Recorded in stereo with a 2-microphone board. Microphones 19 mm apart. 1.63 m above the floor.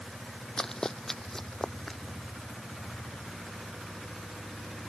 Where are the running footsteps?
25° left (ahead or behind).